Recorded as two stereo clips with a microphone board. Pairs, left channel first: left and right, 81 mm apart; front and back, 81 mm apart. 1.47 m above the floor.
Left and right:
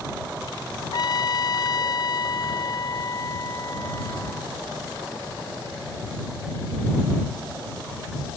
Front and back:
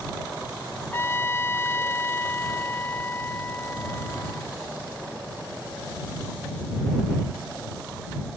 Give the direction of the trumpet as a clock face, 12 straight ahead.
10 o'clock.